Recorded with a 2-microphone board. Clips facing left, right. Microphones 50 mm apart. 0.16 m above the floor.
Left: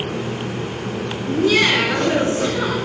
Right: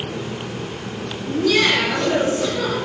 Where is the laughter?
25° left (ahead or behind), 2 m; by 2.8 s 35° left (ahead or behind), 1.9 m.